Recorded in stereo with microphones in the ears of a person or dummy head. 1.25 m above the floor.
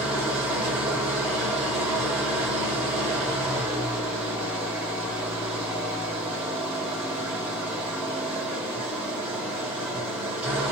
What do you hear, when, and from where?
0.0 s an engine running: 10° right (ahead or behind), 0.9 m